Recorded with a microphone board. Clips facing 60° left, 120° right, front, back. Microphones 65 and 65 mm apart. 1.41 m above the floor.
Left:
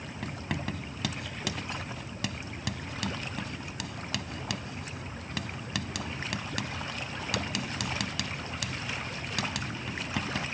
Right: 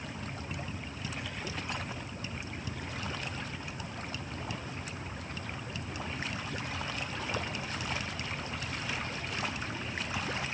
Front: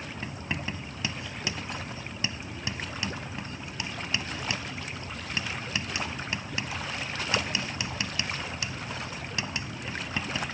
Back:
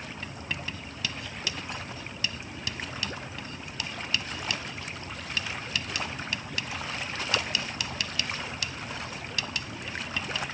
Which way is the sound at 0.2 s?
65° left.